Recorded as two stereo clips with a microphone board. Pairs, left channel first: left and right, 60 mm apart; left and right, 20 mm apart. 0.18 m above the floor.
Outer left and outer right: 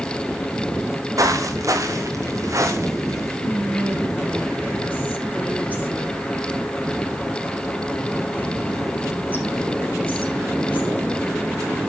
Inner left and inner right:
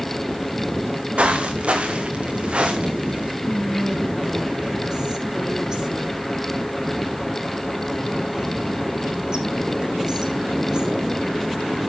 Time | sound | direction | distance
1.2 | footsteps | 70° right (ahead or behind) | 3 m
3.4 | whispering | 30° right (ahead or behind) | 6 m